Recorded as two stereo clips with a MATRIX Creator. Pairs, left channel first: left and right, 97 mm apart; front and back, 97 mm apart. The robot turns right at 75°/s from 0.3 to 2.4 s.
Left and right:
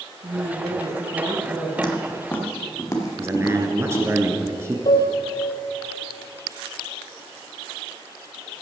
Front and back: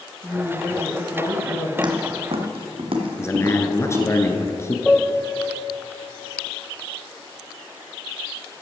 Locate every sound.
0.2 s a woman speaking: 115° right, 4.5 m; by 1.7 s 10° right, 4.5 m
1.8 s footsteps: 135° left, 2 m; by 4.1 s 130° left, 3.5 m
3.2 s a man speaking: 40° right, 1.4 m
4.8 s a piano: 80° left, 1.0 m